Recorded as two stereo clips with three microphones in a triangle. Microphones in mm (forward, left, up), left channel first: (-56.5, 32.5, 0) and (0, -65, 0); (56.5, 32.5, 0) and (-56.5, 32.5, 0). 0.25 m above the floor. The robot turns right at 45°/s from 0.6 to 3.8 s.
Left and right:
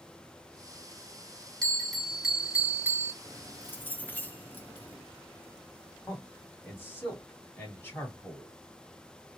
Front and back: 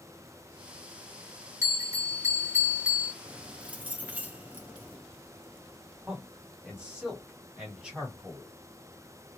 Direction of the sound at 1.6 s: 165° right.